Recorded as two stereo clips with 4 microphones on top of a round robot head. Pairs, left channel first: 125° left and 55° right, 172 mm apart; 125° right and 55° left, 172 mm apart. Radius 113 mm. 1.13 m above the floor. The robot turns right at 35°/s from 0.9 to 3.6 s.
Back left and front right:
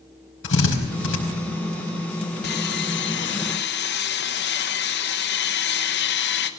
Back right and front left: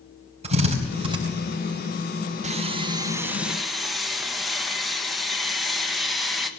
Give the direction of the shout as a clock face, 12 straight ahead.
I don't hear a shout.